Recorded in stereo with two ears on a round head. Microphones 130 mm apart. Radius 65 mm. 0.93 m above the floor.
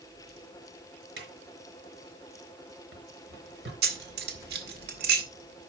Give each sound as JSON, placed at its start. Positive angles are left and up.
{"t": 1.2, "sound": "a drawer", "side_deg": -85, "distance_m": 4.5}
{"t": 3.8, "sound": "keys jangling", "side_deg": -75, "distance_m": 1.8}